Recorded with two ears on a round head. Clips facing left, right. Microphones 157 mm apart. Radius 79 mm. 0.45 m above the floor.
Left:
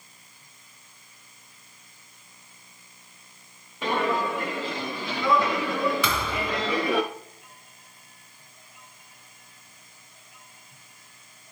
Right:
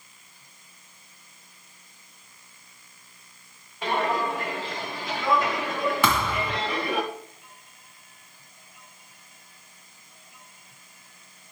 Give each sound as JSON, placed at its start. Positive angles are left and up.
{"t": 3.8, "sound": "footsteps", "side_deg": 80, "distance_m": 4.5}
{"t": 6.0, "sound": "a thud", "side_deg": -40, "distance_m": 1.8}